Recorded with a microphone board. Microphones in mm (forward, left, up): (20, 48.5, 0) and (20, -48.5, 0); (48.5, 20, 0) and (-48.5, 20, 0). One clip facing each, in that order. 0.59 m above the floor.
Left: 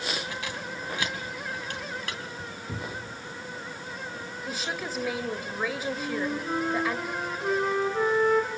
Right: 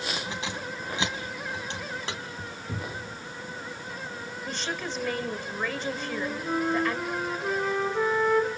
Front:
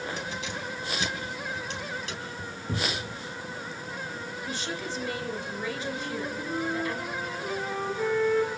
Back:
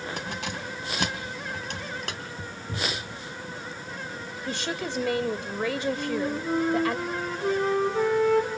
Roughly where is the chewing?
I don't hear chewing.